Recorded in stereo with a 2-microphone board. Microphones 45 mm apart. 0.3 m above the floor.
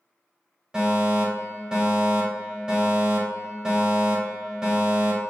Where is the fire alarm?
20° right (ahead or behind), 1.8 m.